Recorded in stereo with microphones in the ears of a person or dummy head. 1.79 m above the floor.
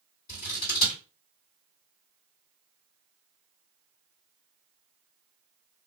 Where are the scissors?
45° left (ahead or behind), 2 m.